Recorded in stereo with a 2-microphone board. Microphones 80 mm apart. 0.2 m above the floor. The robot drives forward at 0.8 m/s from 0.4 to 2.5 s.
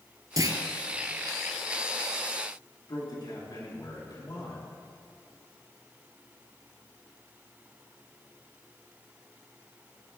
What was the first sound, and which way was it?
A clunk, 50° right (ahead or behind).